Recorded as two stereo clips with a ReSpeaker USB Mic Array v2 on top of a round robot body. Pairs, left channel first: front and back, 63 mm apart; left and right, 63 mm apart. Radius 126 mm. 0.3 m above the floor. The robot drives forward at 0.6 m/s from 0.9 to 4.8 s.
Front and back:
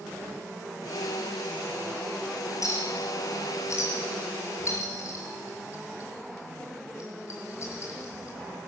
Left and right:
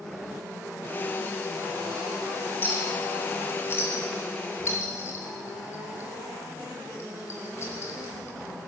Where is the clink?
35° left, 7 m; by 8.7 s 45° left, 6 m.